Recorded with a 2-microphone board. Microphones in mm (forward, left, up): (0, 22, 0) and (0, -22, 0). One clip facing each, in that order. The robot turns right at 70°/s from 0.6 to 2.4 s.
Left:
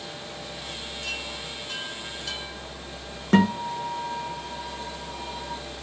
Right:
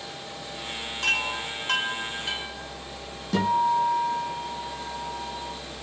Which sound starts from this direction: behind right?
A chime, at 1.0 s.